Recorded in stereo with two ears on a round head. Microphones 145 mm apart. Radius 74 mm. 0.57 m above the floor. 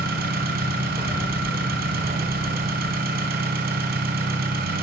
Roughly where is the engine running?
Right.